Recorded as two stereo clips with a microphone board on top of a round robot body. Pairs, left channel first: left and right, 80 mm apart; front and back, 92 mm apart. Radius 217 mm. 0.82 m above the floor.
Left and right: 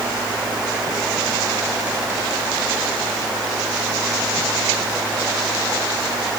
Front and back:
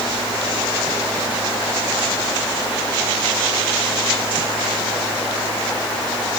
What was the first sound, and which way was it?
Only background noise.